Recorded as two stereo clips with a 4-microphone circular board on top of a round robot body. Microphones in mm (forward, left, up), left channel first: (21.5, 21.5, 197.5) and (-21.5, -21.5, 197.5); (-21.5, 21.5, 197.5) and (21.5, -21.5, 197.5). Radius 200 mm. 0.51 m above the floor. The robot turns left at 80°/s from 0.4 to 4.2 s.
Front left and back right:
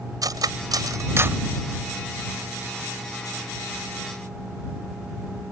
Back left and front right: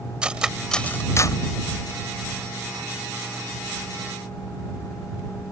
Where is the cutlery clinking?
120° right; by 1.4 s 160° left.